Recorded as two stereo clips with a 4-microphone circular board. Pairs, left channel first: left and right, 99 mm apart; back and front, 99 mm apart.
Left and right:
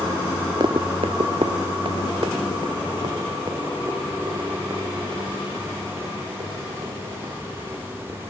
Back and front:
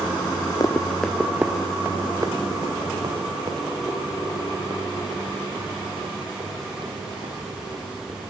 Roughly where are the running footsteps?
Behind right.